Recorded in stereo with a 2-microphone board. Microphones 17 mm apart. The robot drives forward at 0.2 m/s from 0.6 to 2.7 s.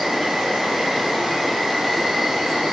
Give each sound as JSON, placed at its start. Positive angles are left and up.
{"t": 0.0, "sound": "an insect", "side_deg": -50, "distance_m": 1.6}